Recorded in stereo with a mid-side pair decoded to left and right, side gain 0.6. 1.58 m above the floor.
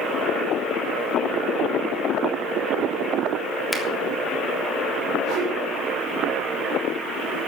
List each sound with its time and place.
3.7 s a finger snap: 5° left, 3 m
5.2 s a whoosh: 60° right, 3.5 m